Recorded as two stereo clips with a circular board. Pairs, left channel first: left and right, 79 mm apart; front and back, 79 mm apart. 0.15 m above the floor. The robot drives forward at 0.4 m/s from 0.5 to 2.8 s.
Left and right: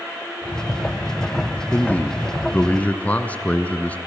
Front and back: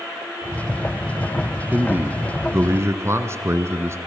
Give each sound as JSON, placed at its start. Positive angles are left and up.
{"t": 1.7, "sound": "a man speaking", "azimuth_deg": 135, "distance_m": 1.4}